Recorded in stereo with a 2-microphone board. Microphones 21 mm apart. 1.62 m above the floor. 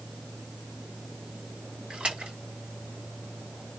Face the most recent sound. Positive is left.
turn(degrees=-75)  # may be behind; listen again after turning